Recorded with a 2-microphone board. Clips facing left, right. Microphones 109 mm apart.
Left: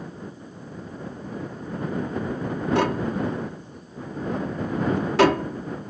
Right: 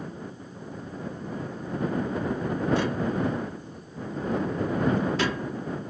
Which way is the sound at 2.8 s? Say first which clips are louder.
Left 3 dB; 75° left (ahead or behind).